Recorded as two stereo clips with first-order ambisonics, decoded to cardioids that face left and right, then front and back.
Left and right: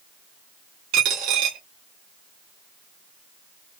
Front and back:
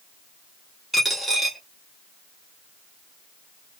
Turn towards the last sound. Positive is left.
turn(degrees=-95)